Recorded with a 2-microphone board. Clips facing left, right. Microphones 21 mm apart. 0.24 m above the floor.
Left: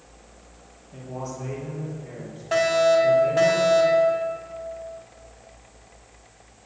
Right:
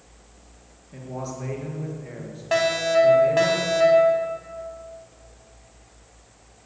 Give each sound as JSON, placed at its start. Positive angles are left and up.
{"t": 0.9, "sound": "a man speaking", "side_deg": -30, "distance_m": 4.5}
{"t": 2.5, "sound": "a fire alarm", "side_deg": -20, "distance_m": 3.0}